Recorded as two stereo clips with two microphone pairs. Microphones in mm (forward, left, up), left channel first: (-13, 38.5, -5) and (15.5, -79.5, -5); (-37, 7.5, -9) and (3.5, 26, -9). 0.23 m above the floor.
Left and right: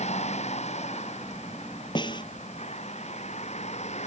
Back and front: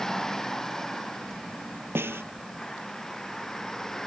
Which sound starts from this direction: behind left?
A vehicle, at 0.0 s.